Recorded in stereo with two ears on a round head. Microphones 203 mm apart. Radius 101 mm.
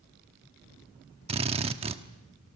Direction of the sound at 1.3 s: 25° right (ahead or behind).